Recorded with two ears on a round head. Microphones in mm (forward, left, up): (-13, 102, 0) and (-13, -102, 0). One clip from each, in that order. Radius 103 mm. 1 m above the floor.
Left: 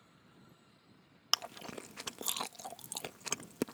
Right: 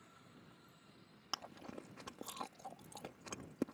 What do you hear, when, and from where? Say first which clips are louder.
1.3 s chewing: left 11 dB; 65° left (ahead or behind)